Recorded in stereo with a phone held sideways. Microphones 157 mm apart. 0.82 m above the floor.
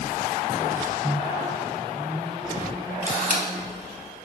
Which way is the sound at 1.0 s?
25° right (ahead or behind).